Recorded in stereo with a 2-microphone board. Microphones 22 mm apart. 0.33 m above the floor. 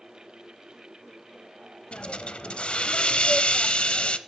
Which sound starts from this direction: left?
A hiss, at 1.9 s.